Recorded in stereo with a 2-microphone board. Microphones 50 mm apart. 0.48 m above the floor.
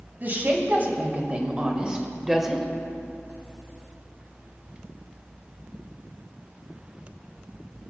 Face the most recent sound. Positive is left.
turn(degrees=0)  # may be behind; listen again after turning